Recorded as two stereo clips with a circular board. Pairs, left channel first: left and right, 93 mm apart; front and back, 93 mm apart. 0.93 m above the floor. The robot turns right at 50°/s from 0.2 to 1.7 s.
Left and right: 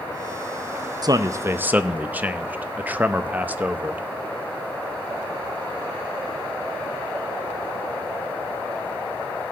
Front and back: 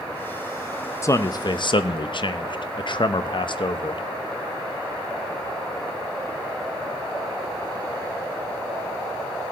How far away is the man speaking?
About 0.6 m.